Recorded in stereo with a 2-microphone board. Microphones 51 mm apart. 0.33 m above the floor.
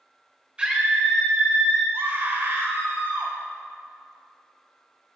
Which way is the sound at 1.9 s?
55° right (ahead or behind).